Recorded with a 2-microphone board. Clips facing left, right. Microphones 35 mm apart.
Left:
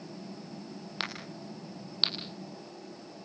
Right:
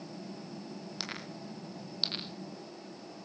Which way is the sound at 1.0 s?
45° left (ahead or behind).